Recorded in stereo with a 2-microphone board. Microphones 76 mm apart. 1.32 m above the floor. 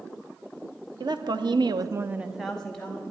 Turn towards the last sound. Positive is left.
turn(degrees=15)  # may be behind; listen again after turning